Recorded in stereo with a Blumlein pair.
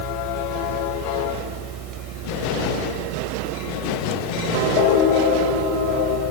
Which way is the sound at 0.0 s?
30° right.